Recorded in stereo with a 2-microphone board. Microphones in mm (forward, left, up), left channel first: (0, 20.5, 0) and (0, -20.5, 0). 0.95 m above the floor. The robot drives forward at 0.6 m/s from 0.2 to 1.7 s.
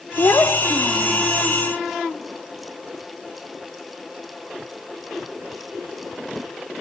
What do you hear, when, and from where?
0.2 s a child speaking: 65° left (ahead or behind), 1.0 m; by 1.3 s 70° left (ahead or behind), 1.0 m